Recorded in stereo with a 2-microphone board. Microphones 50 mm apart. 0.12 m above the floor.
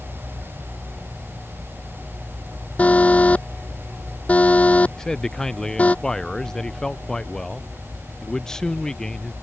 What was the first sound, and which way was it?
An alarm, 25° left (ahead or behind).